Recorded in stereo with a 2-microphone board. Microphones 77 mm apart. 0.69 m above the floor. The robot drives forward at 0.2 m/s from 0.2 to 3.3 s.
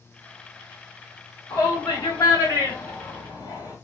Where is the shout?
55° left (ahead or behind), 1.3 m; by 3.8 s 50° left (ahead or behind), 1.5 m.